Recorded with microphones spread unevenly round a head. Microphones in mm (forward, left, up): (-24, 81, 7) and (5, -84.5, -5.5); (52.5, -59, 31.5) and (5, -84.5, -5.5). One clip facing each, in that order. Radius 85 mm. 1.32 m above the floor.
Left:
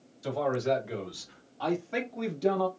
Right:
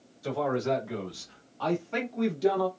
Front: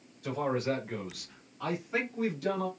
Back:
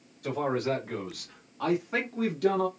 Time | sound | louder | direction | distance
0.2 | a man speaking | even, back 2 dB | 160° left | 2.5 m